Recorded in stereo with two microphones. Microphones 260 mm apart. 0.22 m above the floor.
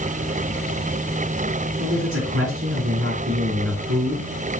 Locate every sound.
1.8 s a man speaking: 60° right (ahead or behind), 3.5 m